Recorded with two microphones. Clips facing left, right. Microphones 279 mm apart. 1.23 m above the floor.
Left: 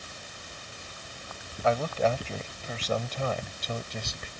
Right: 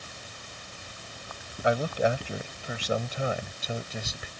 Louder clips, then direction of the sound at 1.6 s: Right 1 dB; 15° right (ahead or behind).